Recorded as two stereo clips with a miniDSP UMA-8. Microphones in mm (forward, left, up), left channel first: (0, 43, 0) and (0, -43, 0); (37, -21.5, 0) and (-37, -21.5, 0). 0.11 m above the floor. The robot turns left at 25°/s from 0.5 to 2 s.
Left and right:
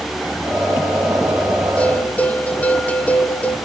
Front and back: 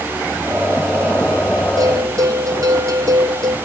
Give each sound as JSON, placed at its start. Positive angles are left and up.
{"t": 1.8, "sound": "a bell", "azimuth_deg": 165, "distance_m": 1.8}